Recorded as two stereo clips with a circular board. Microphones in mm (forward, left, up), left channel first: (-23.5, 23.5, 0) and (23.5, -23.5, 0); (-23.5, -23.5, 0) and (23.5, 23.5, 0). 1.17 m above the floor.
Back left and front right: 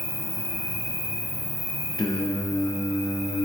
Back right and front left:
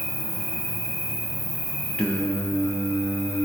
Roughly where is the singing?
Behind left.